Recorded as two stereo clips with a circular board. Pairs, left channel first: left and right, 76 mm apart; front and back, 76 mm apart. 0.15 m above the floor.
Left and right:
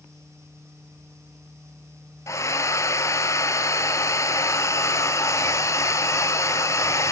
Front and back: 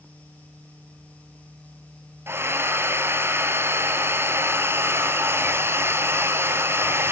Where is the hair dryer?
130° left, 1.2 m.